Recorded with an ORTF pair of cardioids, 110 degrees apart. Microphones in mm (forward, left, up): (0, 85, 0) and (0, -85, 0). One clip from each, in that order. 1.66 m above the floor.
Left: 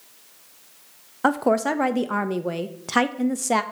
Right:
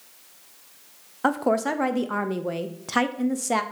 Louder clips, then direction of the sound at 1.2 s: Left 2 dB; 10° left.